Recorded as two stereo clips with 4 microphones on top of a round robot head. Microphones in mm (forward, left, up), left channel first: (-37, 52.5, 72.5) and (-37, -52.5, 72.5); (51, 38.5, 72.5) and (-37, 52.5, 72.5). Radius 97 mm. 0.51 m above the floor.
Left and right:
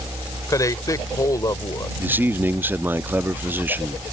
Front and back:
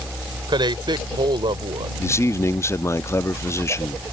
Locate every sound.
0.5 s a man speaking: 145° left
2.0 s a man speaking: 35° right